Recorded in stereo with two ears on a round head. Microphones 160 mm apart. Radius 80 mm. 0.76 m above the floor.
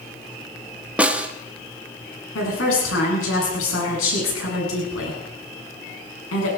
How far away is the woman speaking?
About 8 m.